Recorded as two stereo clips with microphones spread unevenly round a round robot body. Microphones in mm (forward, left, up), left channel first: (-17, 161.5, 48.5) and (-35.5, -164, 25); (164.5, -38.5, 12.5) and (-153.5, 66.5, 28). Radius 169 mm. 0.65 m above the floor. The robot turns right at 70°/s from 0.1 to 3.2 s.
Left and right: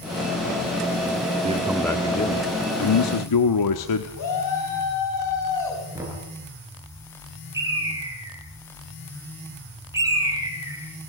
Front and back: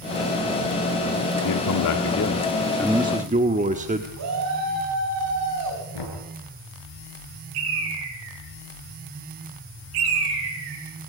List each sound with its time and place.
1.4 s a man speaking: 30° right, 1.7 m; by 4.1 s 95° left, 1.7 m
4.2 s a shout: 120° left, 6 m
5.9 s knocking: 10° right, 9.5 m
7.5 s a bird: 175° right, 4.5 m